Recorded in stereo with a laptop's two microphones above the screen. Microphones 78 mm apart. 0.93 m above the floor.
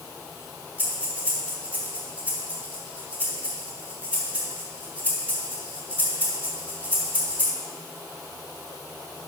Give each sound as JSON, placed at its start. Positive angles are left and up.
{"t": 0.8, "sound": "breathing", "side_deg": -20, "distance_m": 3.5}